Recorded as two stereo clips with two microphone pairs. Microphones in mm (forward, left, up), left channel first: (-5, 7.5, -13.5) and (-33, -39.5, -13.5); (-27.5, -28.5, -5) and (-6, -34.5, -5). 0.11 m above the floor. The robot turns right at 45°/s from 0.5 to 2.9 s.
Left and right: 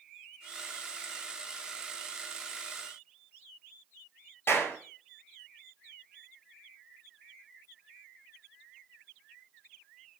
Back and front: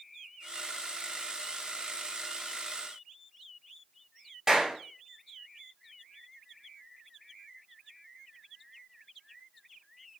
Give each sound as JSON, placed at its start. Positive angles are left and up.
{"t": 4.5, "sound": "a clap", "azimuth_deg": 40, "distance_m": 1.7}